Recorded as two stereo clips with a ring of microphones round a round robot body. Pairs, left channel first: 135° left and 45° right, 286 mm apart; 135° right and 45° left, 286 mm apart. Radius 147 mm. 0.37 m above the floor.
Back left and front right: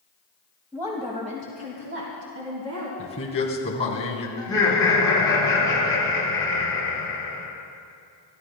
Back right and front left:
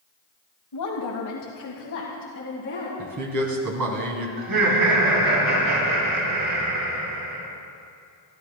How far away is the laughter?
About 7 m.